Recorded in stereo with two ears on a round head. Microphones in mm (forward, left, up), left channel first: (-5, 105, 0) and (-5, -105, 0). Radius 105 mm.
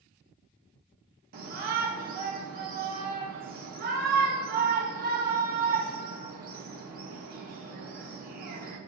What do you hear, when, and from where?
1.3 s a shout: 40° right (ahead or behind), 0.7 m